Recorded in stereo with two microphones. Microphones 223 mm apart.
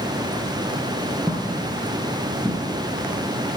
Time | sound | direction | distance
1.3 | footsteps | 10° right (ahead or behind) | 2.5 m